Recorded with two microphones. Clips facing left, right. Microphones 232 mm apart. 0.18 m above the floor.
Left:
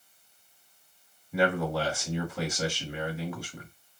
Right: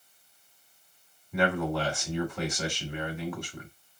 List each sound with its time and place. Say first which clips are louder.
1.3 s a man speaking: left 1 dB; 5° left (ahead or behind), 1.2 m